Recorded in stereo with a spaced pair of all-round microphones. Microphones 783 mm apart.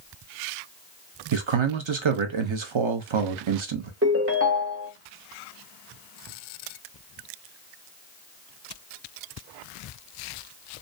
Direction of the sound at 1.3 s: 45° right (ahead or behind).